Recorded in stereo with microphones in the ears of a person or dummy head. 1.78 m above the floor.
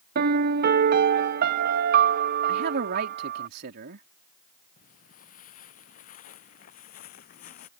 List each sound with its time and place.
0.1 s a piano: 50° right (ahead or behind)
2.5 s a man speaking: 55° right (ahead or behind)
4.8 s footsteps: 50° left (ahead or behind)